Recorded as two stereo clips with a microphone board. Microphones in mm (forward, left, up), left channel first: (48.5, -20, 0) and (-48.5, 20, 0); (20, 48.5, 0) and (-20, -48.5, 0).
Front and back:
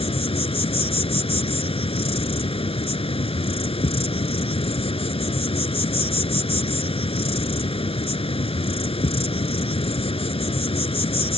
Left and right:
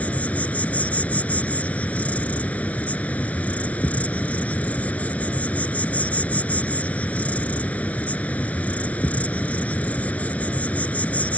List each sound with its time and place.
0.0 s an insect: 5° right